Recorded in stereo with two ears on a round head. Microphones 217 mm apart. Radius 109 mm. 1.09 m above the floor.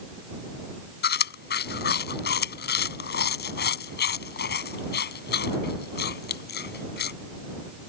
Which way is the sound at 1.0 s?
45° left (ahead or behind).